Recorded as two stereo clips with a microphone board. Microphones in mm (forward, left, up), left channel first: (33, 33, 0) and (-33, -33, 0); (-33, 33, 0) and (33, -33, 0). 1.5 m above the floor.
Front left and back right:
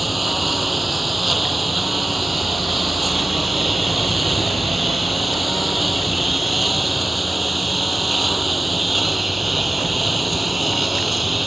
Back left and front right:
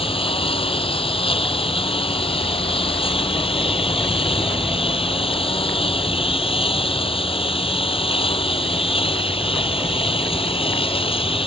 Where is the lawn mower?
135° left.